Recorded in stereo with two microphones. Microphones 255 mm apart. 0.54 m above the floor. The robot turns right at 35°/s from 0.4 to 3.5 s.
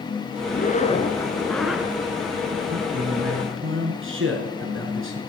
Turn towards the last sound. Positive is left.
turn(degrees=-55)  # may be behind; listen again after turning